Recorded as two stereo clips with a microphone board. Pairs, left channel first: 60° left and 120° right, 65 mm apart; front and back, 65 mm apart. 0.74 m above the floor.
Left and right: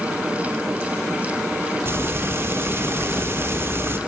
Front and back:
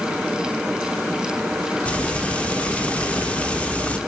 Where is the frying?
70° right, 1.1 m.